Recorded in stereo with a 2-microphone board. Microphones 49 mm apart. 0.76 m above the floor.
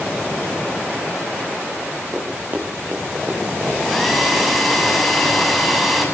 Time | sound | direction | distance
2.1 | running footsteps | 30° right (ahead or behind) | 9.5 m
3.8 | a hair dryer | 5° right (ahead or behind) | 6.5 m